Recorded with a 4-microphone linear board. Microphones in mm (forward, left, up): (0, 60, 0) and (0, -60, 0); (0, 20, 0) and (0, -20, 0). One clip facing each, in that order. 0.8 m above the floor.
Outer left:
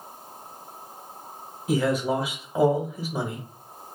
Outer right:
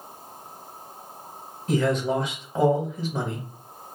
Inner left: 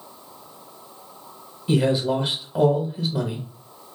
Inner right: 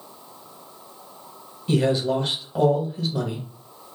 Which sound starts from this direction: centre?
A man speaking, at 1.7 s.